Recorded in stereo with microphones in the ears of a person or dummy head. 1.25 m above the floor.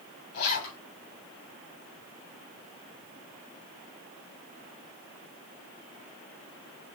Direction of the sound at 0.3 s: 55° left (ahead or behind).